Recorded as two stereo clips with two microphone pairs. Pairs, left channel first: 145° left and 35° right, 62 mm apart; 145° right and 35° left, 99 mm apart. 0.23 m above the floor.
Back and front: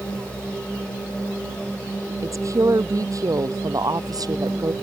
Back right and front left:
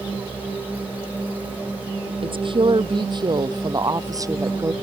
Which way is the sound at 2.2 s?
5° left.